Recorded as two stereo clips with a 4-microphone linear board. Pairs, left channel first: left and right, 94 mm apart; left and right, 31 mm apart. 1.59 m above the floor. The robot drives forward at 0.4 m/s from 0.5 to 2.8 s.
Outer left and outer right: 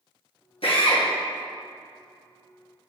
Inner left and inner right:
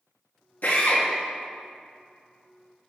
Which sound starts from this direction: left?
A drill, at 0.6 s.